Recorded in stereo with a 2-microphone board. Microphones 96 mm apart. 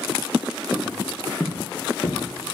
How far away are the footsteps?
About 0.8 m.